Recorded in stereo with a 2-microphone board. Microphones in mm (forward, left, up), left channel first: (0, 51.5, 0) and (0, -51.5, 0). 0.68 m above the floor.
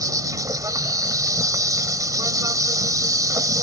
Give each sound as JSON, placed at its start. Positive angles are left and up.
{"t": 0.0, "sound": "an insect", "side_deg": -35}